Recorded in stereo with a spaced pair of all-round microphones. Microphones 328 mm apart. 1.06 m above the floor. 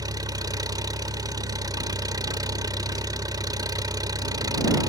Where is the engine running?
10° right (ahead or behind).